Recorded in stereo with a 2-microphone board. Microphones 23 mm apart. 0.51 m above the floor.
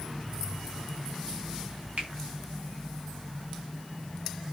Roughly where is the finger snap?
Right.